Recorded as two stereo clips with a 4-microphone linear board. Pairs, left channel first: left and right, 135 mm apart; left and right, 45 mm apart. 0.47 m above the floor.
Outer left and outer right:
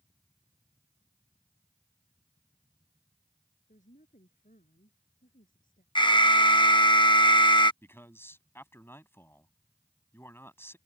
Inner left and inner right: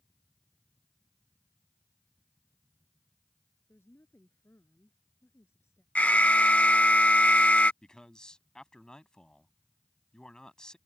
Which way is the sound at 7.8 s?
15° left (ahead or behind).